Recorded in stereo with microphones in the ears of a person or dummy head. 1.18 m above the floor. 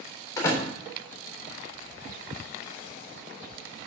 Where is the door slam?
20° left (ahead or behind), 3.5 m.